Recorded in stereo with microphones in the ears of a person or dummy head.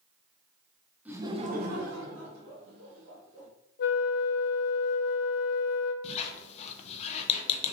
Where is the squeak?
40° left (ahead or behind), 0.5 m.